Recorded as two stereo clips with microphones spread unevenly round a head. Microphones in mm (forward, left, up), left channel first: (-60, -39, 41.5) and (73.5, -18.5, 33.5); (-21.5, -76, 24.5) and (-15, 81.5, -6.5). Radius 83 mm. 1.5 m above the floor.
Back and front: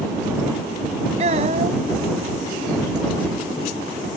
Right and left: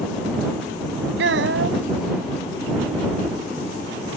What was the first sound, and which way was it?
A child speaking, 60° left.